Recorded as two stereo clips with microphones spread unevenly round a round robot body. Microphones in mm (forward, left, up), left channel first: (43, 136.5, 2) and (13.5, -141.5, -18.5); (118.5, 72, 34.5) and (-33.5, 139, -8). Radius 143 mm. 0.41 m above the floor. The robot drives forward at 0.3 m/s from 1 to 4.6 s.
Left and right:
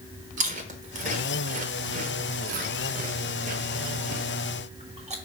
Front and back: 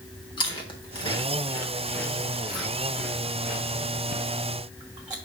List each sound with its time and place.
0.4 s chewing: 90° right, 1.0 m; by 5.1 s 155° right, 1.5 m